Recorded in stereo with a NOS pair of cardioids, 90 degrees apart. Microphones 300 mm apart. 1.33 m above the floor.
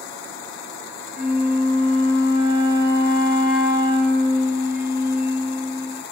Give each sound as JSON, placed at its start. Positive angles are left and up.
{"t": 1.1, "sound": "a flute", "azimuth_deg": -30, "distance_m": 0.7}